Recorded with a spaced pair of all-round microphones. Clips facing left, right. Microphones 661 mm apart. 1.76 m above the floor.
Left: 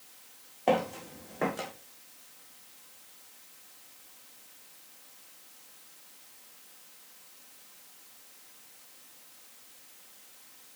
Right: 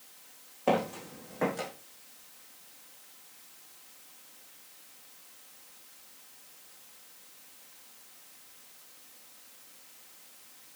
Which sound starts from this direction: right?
Footsteps, at 0.7 s.